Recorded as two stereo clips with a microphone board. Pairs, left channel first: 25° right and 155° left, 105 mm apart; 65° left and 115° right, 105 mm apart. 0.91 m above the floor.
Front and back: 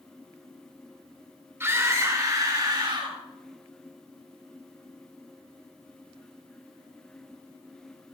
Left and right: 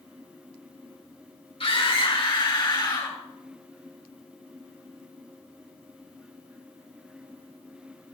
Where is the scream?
90° left, 3 m; by 3.2 s 115° left, 4.5 m.